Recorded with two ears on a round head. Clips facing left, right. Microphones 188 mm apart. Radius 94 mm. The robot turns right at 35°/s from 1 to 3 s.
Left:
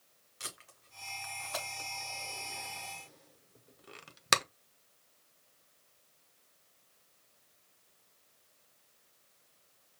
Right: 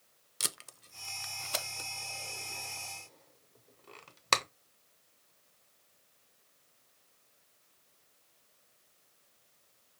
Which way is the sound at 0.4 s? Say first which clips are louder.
Right 5 dB; 55° right (ahead or behind).